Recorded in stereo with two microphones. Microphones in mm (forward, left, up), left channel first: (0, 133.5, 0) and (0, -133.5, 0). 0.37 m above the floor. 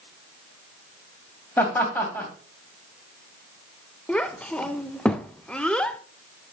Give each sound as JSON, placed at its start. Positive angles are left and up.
{"t": 1.6, "sound": "laughter", "side_deg": 5, "distance_m": 2.5}
{"t": 4.1, "sound": "a child speaking", "side_deg": 5, "distance_m": 0.5}